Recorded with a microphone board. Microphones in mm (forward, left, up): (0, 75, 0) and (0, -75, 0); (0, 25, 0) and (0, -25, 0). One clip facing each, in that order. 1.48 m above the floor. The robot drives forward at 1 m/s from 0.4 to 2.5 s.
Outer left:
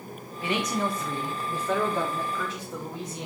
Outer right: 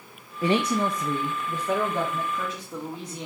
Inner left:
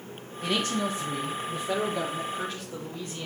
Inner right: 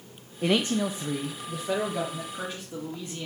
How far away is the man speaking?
About 0.6 m.